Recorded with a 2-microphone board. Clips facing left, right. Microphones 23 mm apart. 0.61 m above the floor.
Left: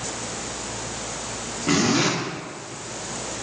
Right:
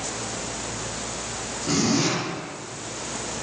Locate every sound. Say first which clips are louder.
1.7 s a zipper: left 2 dB; 50° left (ahead or behind), 1.0 m